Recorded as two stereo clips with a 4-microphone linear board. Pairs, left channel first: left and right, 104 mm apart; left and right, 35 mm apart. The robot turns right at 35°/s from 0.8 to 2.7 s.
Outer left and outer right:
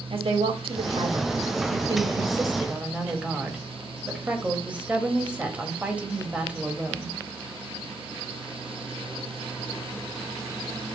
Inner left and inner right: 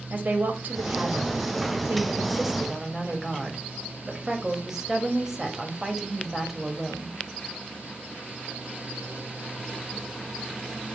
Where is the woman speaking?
80° right, 1.9 m; by 7.2 s 15° right, 1.9 m.